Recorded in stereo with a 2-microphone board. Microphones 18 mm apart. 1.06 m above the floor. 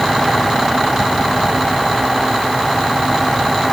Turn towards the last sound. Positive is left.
No sound to turn to.